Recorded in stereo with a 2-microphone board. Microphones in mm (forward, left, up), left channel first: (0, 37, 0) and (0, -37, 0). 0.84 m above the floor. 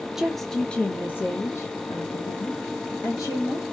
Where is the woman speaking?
5° right (ahead or behind), 0.9 m; by 3.6 s 55° left (ahead or behind), 1.9 m.